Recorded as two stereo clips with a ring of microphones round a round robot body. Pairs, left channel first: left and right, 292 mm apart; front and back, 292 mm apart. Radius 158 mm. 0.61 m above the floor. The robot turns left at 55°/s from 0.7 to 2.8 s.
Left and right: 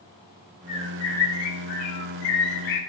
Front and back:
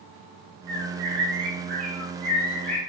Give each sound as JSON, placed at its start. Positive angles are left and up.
{"t": 0.7, "sound": "a bird", "azimuth_deg": -165, "distance_m": 3.5}